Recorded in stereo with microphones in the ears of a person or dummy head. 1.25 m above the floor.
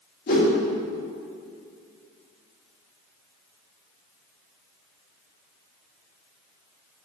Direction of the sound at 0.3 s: 55° left (ahead or behind).